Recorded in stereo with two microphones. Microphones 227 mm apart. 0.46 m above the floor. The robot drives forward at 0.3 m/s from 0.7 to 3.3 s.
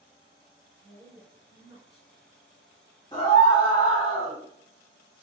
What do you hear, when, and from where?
0.8 s a woman speaking: 45° left (ahead or behind), 1.8 m; by 2.1 s 50° left (ahead or behind), 1.7 m
3.1 s a scream: 20° left (ahead or behind), 1.9 m